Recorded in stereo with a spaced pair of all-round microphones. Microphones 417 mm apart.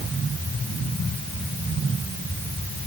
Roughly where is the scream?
I don't hear a scream.